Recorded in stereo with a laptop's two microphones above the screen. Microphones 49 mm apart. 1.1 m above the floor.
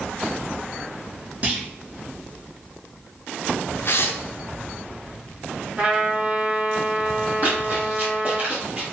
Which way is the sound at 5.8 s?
20° right (ahead or behind).